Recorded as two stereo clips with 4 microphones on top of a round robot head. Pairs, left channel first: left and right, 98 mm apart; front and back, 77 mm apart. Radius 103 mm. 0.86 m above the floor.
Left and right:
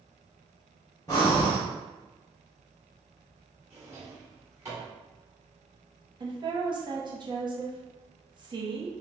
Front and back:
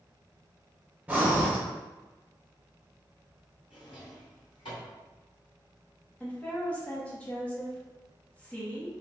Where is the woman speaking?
70° right, 1.1 m.